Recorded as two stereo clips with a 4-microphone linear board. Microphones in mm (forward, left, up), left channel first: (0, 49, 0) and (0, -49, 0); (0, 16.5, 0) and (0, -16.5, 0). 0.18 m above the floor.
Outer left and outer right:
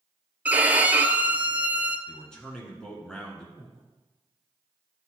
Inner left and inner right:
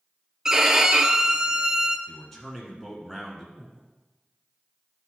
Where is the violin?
15° right (ahead or behind), 0.5 m.